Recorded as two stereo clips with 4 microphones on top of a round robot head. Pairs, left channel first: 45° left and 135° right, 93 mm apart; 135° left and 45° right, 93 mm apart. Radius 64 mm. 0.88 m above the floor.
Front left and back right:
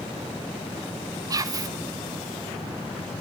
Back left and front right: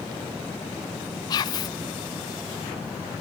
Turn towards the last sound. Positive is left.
turn(degrees=175)